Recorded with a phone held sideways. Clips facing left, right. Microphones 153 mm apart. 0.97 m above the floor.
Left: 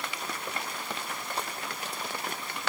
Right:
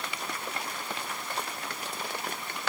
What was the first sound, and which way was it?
Only background noise.